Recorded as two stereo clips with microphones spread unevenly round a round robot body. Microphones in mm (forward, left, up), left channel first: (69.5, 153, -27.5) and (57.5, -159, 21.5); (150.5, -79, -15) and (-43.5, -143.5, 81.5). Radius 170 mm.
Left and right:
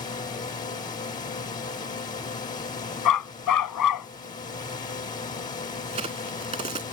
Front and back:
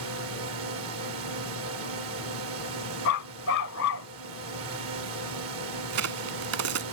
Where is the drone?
160° left.